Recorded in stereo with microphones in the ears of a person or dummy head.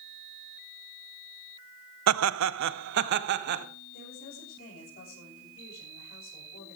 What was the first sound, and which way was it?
Laughter, 85° right.